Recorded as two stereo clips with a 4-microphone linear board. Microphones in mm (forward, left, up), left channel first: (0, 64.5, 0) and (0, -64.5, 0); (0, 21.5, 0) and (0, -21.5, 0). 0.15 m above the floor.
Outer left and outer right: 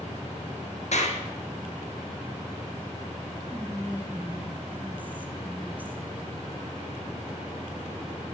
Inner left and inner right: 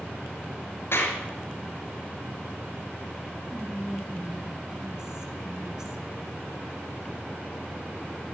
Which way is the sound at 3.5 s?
15° right (ahead or behind).